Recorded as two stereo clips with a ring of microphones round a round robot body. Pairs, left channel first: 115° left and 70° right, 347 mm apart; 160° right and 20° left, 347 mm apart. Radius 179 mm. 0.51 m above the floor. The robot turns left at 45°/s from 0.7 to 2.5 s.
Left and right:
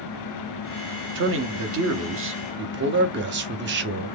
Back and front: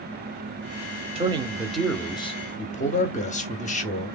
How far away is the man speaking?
About 0.8 m.